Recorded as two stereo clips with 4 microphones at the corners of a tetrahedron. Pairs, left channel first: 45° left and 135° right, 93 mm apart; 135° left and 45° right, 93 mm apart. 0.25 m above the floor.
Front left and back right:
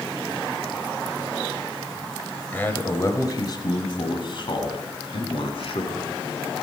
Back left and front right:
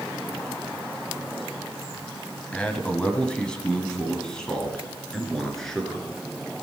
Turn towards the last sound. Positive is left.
turn(degrees=50)